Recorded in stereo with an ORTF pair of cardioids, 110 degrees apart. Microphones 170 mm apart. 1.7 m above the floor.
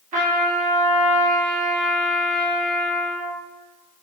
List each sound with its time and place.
0.1 s a trumpet: 50° right, 1.2 m